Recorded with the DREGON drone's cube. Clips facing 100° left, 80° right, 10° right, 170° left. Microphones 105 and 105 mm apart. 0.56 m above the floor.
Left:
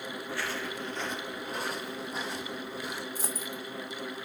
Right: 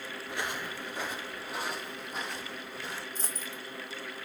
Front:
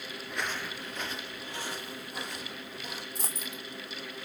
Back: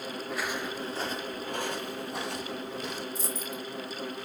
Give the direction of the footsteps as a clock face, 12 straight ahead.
3 o'clock.